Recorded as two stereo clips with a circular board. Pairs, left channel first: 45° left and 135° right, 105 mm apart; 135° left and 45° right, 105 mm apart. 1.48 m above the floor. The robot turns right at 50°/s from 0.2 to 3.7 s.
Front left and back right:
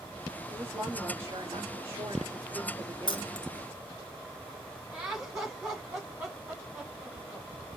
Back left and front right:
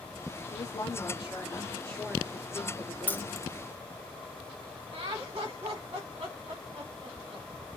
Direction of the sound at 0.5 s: 150° left.